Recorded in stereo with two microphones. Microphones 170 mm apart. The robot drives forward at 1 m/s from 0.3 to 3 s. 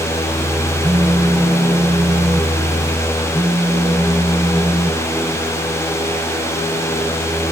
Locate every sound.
0.8 s a phone buzzing: 5° right (ahead or behind)